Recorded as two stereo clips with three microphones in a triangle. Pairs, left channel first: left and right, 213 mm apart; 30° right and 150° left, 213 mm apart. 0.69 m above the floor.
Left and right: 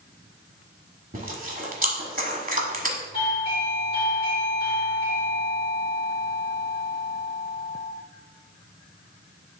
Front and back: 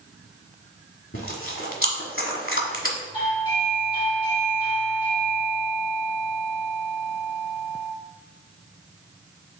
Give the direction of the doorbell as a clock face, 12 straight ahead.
11 o'clock.